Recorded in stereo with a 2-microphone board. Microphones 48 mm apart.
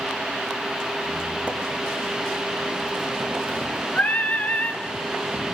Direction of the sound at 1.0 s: 30° right (ahead or behind).